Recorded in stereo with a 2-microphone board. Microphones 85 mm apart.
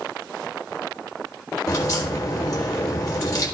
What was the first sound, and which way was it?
A crack, 45° left (ahead or behind).